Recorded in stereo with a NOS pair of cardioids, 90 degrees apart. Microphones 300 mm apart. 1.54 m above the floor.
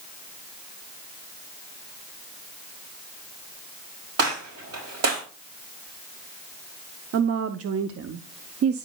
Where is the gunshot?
60° right, 4.5 m.